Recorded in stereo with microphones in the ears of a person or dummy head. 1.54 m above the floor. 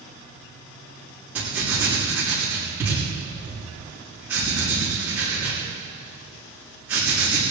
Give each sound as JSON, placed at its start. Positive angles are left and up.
{"t": 1.4, "sound": "writing", "side_deg": -10, "distance_m": 5.0}